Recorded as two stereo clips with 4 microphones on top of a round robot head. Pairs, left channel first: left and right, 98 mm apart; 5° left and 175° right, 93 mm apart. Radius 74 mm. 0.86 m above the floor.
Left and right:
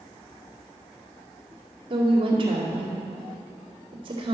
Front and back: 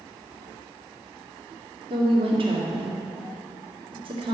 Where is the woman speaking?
135° right, 2 m.